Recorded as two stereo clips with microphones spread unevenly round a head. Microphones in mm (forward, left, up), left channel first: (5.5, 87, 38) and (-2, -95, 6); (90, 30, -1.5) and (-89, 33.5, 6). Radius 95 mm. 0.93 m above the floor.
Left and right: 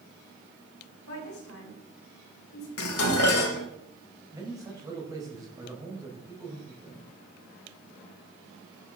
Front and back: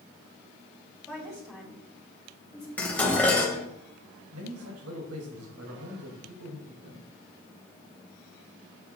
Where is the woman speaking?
90° left, 5.5 m.